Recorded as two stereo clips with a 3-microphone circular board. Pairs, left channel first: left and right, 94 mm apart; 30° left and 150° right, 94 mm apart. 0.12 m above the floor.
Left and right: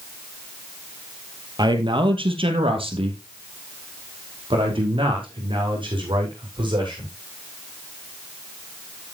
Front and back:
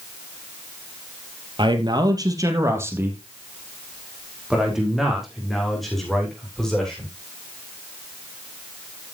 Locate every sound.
1.6 s a man speaking: 125° right, 2.5 m; by 7.1 s 55° right, 8 m